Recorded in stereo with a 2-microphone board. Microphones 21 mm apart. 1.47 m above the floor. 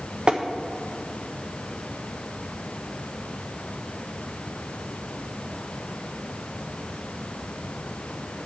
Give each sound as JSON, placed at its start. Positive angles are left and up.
{"t": 0.3, "sound": "tapping", "side_deg": -40, "distance_m": 1.2}